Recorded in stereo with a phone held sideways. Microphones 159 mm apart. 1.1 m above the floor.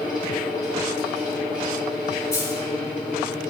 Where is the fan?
5° right (ahead or behind), 1.9 m.